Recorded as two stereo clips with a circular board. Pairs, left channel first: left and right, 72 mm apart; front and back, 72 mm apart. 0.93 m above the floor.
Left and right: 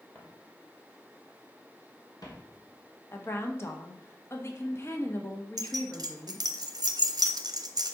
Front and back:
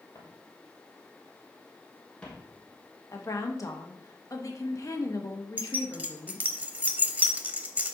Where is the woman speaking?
40° left, 1.2 m.